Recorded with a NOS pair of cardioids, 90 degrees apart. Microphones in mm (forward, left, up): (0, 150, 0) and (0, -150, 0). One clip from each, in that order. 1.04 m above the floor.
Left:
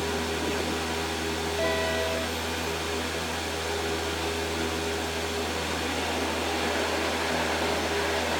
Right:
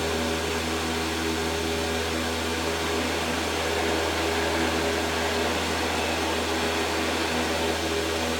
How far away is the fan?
About 0.8 m.